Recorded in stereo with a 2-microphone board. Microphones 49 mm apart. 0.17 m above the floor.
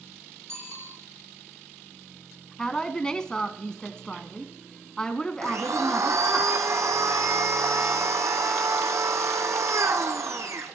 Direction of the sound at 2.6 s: 15° left (ahead or behind).